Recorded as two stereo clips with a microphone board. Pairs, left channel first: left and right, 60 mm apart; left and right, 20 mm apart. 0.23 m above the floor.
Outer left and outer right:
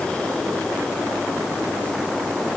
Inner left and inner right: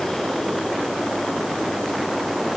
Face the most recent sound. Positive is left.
No sound to turn to.